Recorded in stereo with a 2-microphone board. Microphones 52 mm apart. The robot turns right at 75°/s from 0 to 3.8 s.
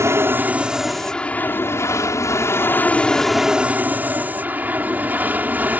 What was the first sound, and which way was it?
An aircraft, 70° right.